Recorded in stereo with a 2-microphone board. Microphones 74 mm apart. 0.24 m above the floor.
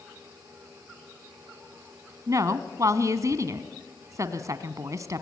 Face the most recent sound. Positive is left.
turn(degrees=-50)  # may be behind; listen again after turning